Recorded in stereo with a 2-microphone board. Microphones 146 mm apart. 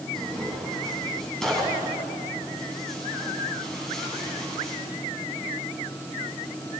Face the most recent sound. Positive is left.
turn(degrees=5)  # may be behind; listen again after turning